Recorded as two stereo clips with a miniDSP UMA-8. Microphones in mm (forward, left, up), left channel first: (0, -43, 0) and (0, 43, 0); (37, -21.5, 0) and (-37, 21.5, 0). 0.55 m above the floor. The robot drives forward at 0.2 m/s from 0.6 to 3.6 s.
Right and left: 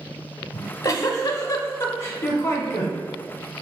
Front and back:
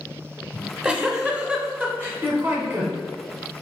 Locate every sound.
0.5 s a giggle: 125° right, 0.7 m; by 3.0 s 150° right, 1.0 m